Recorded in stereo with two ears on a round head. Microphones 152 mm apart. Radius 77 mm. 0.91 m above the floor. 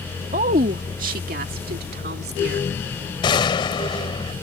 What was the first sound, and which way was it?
A woman speaking, 40° right (ahead or behind).